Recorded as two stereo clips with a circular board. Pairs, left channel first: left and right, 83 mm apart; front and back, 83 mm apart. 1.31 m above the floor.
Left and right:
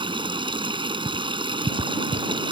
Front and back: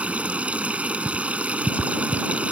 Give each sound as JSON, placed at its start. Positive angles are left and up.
{"t": 0.0, "sound": "running water", "azimuth_deg": -105}